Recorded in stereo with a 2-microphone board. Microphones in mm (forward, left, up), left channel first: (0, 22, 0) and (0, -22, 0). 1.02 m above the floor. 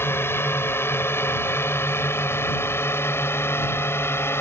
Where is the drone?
65° left (ahead or behind).